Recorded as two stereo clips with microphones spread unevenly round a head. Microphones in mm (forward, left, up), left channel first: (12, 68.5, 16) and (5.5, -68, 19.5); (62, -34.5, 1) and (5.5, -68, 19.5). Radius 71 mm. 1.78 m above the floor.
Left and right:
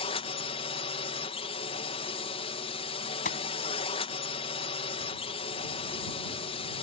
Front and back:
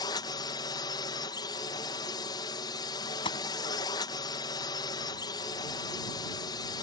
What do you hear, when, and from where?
0.0 s a drone: 40° left
3.2 s a gunshot: 55° left